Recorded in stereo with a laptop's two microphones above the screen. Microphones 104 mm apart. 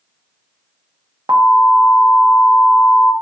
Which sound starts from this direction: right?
An alarm, at 1.3 s.